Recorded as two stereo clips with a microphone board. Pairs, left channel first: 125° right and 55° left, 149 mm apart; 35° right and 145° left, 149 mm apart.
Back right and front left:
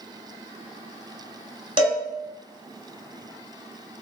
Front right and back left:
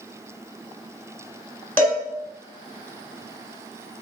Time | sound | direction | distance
1.8 | a cowbell | 35° left | 1.4 m